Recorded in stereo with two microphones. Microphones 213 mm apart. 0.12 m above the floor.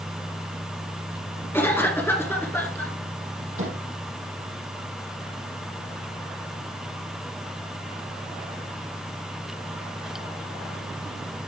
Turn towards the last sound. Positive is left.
turn(degrees=-70)  # may be behind; listen again after turning